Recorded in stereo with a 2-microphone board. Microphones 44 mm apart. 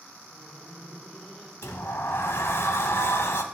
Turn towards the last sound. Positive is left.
turn(degrees=75)  # may be behind; listen again after turning